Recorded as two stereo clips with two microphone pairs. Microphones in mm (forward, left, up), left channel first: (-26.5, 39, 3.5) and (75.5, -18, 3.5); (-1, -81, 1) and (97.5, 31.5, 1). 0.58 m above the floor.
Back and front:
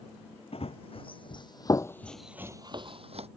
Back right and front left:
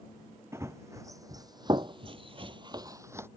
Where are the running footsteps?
120° left; by 3.3 s 25° right.